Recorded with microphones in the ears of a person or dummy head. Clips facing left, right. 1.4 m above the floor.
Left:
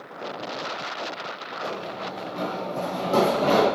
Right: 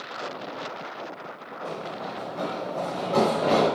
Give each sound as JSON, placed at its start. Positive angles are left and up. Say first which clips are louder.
{"t": 1.6, "sound": "running footsteps", "louder": "left 1 dB", "side_deg": 45, "distance_m": 1.9}